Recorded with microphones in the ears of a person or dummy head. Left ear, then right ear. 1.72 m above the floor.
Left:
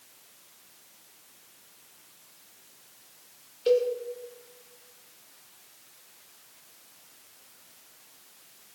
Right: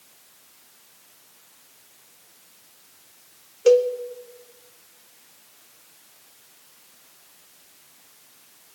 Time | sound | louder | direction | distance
3.7 | a cowbell | right 7 dB | 35° right (ahead or behind) | 0.7 m